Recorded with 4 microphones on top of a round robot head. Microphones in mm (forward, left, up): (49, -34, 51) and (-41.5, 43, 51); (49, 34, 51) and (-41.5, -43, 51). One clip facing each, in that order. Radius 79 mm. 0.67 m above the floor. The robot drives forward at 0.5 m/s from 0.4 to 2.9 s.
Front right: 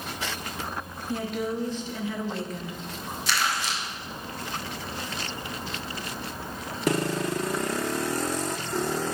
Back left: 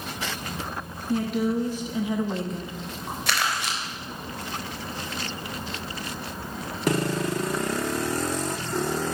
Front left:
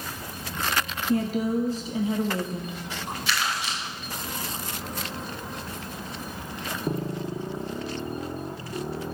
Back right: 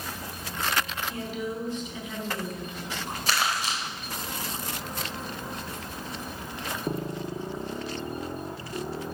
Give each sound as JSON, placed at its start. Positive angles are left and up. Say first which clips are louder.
{"t": 1.1, "sound": "a woman speaking", "louder": "back left 5 dB, front left 13 dB", "azimuth_deg": 50, "distance_m": 1.5}
{"t": 3.3, "sound": "crumpling", "louder": "even, back right 2 dB", "azimuth_deg": 170, "distance_m": 3.0}